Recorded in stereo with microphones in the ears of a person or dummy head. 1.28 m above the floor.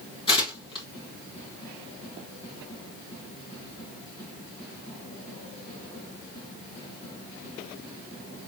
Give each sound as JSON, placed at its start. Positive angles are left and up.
{"t": 0.3, "sound": "tearing paper", "side_deg": 30, "distance_m": 2.0}